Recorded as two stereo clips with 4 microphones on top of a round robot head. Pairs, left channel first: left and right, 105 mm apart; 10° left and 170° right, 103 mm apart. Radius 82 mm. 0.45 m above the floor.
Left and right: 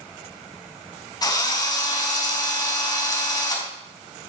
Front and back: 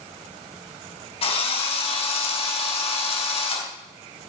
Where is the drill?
35° left, 4 m.